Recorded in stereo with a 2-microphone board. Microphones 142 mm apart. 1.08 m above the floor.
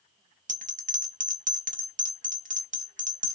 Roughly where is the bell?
Right.